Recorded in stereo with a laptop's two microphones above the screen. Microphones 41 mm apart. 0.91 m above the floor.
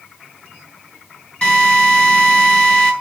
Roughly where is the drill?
Left.